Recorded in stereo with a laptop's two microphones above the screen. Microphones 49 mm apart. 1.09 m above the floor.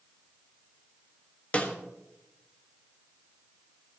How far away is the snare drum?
About 1.5 m.